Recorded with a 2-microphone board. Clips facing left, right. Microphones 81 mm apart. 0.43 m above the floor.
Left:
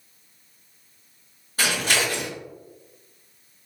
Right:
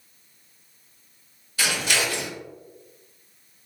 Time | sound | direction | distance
1.6 | scissors | 45° left (ahead or behind) | 1.4 m